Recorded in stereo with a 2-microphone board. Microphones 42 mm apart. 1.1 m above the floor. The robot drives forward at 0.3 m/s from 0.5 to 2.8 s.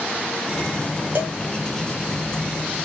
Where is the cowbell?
50° right (ahead or behind), 1.1 m.